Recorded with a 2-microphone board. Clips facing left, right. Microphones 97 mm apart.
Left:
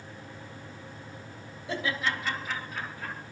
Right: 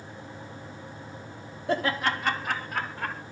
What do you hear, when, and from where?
1.7 s laughter: 60° right (ahead or behind), 1.9 m; by 3.2 s 70° right (ahead or behind), 3 m